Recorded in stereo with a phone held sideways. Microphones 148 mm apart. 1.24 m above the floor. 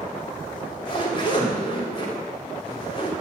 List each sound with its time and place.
0.5 s a zipper: 35° left (ahead or behind), 3.5 m